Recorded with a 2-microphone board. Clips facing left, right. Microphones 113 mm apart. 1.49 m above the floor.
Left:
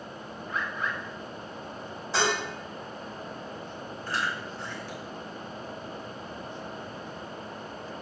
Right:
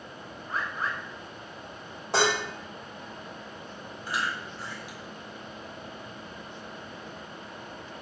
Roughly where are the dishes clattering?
Right.